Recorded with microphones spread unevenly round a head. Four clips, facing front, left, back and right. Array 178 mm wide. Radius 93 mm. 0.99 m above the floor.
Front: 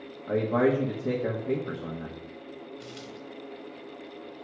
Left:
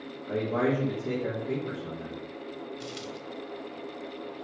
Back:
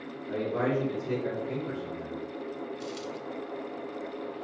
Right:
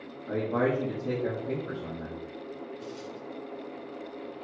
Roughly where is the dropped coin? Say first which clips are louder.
Left 1 dB, back 5 dB; left.